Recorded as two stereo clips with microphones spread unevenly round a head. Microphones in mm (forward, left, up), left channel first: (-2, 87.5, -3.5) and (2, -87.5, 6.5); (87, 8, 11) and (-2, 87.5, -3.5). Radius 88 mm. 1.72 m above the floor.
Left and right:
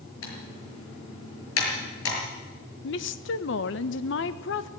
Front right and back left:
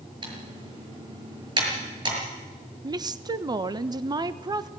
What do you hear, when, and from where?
0.2 s typing on a keyboard: 90° left, 6.5 m
2.8 s a woman speaking: 80° left, 1.2 m